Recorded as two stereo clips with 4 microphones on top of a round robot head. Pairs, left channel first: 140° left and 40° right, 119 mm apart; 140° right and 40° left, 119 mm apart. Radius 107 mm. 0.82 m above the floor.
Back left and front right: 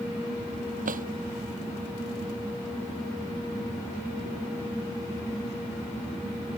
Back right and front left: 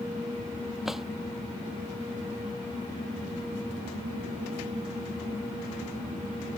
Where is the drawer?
50° right.